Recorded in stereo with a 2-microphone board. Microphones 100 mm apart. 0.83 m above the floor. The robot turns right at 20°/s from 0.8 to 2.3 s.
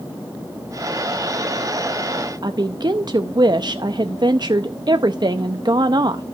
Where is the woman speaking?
45° right (ahead or behind), 0.6 m.